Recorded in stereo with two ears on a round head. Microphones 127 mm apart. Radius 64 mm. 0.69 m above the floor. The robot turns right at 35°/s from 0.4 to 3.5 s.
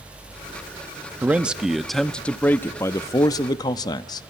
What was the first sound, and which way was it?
A man speaking, 20° right.